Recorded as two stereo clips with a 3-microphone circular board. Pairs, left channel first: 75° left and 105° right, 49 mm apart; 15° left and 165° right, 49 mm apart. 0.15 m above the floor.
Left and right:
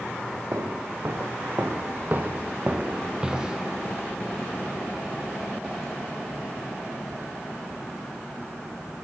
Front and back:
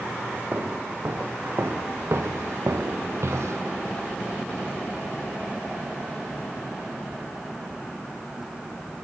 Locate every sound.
0.5 s footsteps: 125° right, 1.8 m; by 3.6 s 175° left, 1.2 m